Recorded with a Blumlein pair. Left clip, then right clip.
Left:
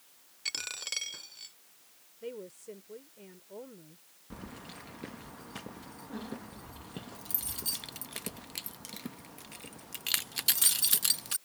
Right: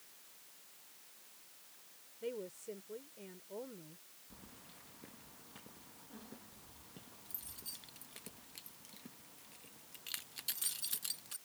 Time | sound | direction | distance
0.5 | a dropped coin | 45° left | ?
2.2 | a woman speaking | 5° left | ?
4.3 | keys jangling | 55° left | ?